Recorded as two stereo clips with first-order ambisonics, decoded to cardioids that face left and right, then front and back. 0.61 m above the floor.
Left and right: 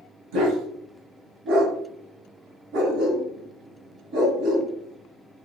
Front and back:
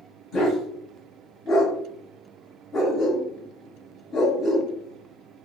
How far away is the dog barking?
About 1.3 m.